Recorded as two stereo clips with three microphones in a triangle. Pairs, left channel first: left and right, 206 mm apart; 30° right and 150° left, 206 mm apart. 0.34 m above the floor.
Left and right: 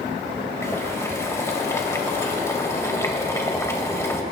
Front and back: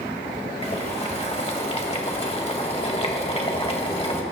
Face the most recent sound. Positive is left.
turn(degrees=20)